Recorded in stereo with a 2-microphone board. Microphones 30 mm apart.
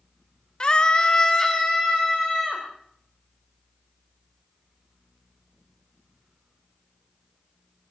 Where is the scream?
30° left (ahead or behind), 0.8 m; by 2.6 s 5° left (ahead or behind), 2 m.